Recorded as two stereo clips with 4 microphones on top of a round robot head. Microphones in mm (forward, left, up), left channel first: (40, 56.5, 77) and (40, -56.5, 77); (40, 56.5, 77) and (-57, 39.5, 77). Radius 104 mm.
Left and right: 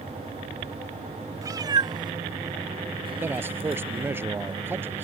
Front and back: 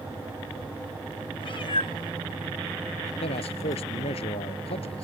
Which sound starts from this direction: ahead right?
A cat meowing, at 1.4 s.